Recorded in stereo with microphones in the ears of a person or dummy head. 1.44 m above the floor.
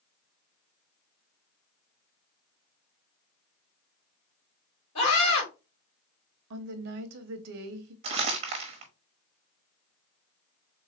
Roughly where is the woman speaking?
Right.